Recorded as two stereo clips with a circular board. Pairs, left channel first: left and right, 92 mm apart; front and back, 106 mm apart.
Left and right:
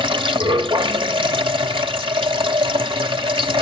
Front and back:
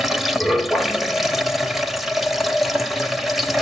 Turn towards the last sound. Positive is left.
turn(degrees=-90)